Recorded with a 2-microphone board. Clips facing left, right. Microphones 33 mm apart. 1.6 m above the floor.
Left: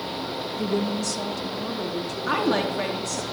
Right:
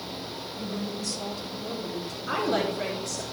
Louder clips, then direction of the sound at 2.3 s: Left 3 dB; 65° left (ahead or behind).